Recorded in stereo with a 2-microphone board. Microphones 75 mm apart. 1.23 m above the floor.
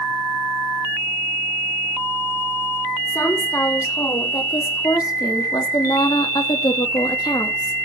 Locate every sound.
3.1 s a woman speaking: 40° left (ahead or behind), 4.5 m; by 7.8 s 65° left (ahead or behind), 2 m